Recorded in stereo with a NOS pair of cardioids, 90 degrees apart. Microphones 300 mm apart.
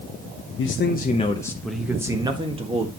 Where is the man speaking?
45° left, 1.0 m; by 2.9 s 20° right, 2.0 m.